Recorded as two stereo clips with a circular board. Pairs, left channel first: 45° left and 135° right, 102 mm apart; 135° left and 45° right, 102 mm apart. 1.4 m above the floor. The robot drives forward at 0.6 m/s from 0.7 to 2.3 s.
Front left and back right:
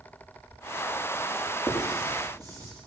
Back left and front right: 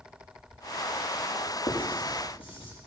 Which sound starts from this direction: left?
Writing, at 1.7 s.